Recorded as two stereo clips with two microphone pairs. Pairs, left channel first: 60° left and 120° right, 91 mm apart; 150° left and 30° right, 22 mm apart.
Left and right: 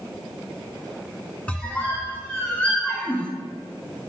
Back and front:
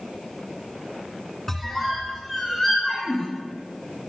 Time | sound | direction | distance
1.5 | a squeak | 110° left | 0.8 m